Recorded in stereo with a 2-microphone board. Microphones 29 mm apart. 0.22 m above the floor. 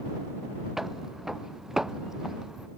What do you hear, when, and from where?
0.8 s footsteps: 10° right (ahead or behind); by 2.7 s 20° right (ahead or behind)